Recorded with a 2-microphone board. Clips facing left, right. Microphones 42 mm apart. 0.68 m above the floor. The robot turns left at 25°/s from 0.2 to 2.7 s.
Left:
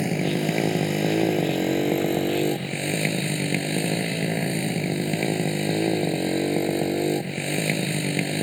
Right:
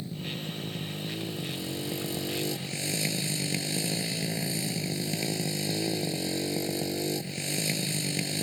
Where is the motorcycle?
90° left; by 8.4 s 30° left.